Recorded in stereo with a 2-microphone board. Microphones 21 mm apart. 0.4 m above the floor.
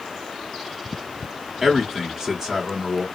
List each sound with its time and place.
1.6 s a man speaking: 25° right (ahead or behind), 1.4 m